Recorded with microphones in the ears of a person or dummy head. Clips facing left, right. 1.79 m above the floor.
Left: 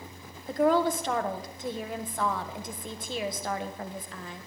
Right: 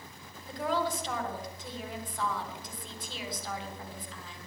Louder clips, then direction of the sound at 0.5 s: Left 8 dB; 50° left (ahead or behind).